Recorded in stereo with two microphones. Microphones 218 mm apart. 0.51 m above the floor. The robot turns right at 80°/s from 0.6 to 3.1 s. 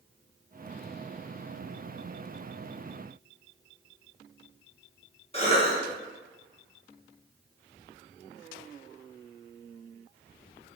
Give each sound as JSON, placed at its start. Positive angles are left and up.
{"t": 5.3, "sound": "a cough", "side_deg": 25, "distance_m": 0.8}